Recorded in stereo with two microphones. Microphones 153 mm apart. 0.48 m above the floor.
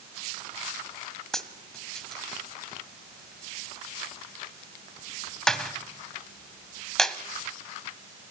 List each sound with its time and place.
1.3 s a dropped coin: 5° left (ahead or behind), 1.5 m